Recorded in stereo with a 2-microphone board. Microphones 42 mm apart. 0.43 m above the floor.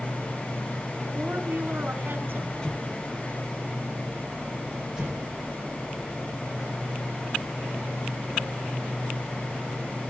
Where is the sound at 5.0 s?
10° right (ahead or behind), 7 m.